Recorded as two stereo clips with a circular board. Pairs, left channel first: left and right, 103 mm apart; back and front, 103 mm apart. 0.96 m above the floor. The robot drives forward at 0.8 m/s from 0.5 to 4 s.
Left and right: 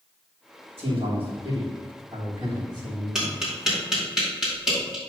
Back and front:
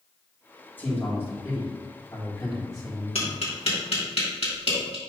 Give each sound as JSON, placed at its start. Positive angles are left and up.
{"t": 0.8, "sound": "a man speaking", "azimuth_deg": -110, "distance_m": 3.5}
{"t": 3.1, "sound": "tapping", "azimuth_deg": -175, "distance_m": 3.0}